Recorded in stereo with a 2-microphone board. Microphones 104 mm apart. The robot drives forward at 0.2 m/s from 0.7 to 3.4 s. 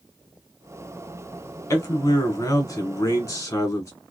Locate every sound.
1.7 s a man speaking: 35° left (ahead or behind), 1.3 m; by 3.9 s 30° left (ahead or behind), 1.3 m